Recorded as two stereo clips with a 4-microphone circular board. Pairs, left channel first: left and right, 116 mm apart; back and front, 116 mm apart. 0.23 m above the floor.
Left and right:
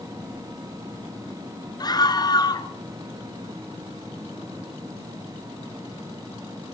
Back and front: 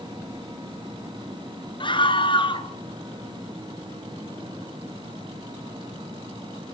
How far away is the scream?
About 3.5 m.